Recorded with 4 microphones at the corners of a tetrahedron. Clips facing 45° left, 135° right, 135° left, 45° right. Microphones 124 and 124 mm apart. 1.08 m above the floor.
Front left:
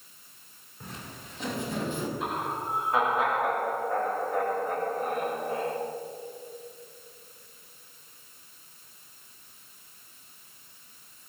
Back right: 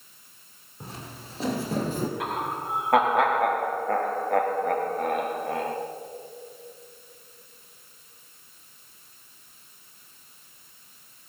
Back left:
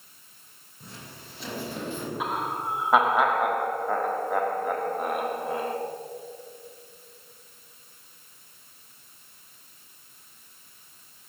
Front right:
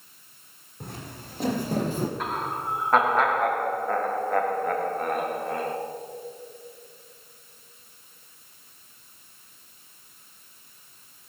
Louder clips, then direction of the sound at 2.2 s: Back right 2 dB, even; 145° right.